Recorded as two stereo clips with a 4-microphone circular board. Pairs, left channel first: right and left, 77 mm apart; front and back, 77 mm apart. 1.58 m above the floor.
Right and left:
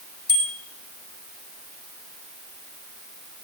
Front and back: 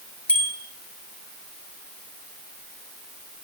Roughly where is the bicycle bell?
Left.